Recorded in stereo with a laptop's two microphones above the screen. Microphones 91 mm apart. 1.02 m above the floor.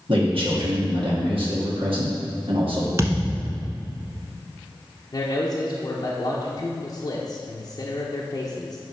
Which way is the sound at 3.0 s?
30° right (ahead or behind).